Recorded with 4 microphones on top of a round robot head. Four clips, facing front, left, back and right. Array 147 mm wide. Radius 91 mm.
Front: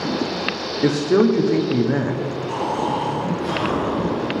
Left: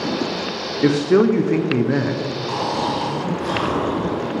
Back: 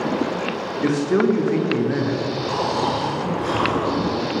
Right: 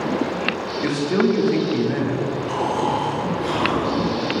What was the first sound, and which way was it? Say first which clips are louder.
A man speaking: left 5 dB, front 2 dB; 65° left.